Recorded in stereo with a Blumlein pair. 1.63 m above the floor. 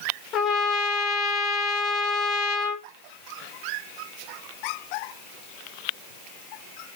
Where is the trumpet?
35° left, 0.6 m.